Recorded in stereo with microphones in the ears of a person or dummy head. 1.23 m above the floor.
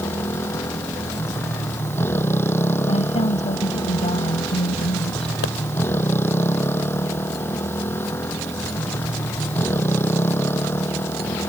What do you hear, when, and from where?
0.0 s a motorcycle: 15° left (ahead or behind)
2.9 s a woman speaking: 30° left (ahead or behind)
5.4 s a pop: 75° left (ahead or behind)